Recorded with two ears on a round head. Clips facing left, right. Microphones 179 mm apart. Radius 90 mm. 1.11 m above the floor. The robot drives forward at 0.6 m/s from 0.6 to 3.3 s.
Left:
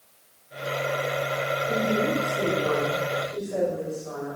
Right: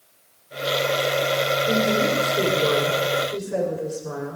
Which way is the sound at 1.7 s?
75° right (ahead or behind).